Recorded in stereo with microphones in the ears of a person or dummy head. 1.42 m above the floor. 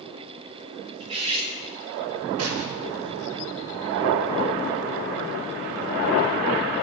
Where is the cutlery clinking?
30° right (ahead or behind), 3 m.